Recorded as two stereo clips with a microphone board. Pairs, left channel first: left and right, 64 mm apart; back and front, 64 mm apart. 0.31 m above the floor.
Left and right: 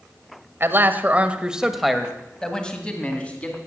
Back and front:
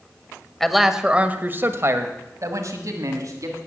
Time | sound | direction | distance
0.6 | a man speaking | 100° right | 1.1 m